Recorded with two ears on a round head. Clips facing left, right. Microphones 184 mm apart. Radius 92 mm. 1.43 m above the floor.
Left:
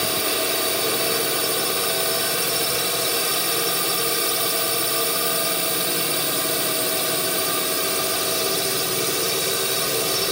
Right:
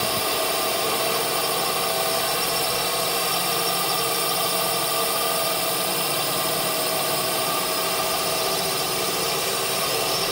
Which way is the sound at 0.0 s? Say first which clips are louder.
Even; 25° left (ahead or behind).